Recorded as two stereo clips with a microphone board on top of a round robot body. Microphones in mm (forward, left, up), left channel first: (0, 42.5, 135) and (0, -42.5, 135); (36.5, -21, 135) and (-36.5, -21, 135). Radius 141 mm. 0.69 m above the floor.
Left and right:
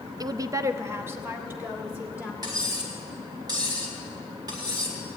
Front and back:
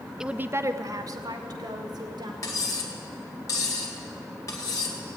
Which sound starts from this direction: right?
A woman speaking, at 0.2 s.